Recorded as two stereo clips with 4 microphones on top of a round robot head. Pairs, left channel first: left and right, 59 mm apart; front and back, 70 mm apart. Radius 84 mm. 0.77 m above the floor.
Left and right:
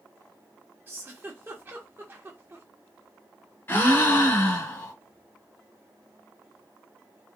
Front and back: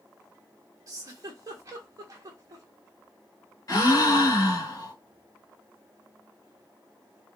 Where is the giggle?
145° right, 1.3 m.